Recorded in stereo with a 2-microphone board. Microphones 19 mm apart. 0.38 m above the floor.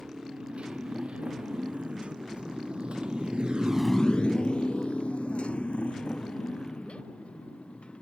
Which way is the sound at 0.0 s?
80° right.